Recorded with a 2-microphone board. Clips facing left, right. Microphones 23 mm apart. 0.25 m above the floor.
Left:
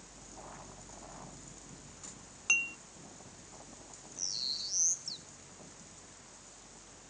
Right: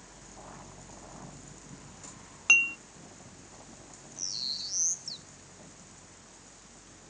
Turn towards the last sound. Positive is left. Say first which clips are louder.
# right 2 dB
turn(degrees=-10)  # may be behind; listen again after turning